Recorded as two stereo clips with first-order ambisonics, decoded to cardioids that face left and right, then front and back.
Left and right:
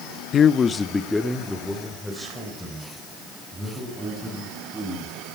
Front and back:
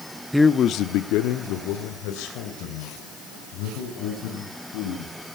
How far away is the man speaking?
About 0.6 m.